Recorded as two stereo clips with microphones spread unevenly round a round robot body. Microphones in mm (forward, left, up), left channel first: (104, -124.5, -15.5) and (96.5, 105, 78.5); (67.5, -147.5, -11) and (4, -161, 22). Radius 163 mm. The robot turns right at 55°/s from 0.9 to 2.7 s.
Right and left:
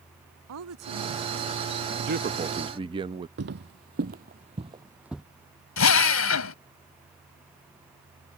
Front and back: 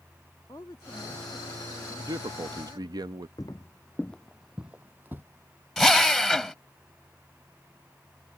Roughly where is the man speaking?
Behind left.